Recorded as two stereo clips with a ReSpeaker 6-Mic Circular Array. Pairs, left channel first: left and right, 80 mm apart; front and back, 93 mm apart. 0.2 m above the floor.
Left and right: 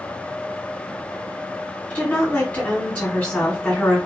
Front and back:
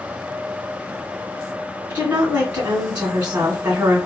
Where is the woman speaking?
135° left, 1.4 m.